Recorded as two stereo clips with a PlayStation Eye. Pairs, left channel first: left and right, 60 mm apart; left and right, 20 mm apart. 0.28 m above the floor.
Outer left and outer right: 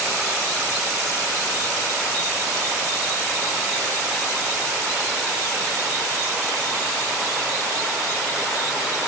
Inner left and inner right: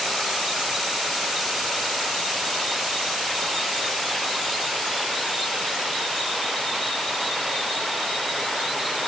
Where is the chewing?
No chewing in this recording.